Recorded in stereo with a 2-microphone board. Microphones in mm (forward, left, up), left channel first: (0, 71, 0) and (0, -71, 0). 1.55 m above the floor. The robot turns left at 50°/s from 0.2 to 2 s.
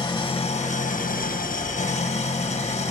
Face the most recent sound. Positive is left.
turn(degrees=60)